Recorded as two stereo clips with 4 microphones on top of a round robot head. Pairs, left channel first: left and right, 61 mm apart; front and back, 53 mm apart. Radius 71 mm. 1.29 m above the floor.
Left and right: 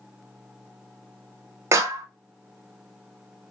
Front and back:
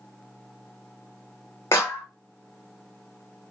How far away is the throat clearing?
No throat clearing in this recording.